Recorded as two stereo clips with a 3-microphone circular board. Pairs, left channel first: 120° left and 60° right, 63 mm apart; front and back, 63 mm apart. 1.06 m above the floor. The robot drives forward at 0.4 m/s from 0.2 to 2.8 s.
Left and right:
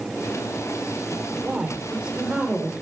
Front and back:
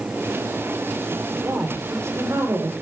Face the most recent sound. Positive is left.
turn(degrees=-140)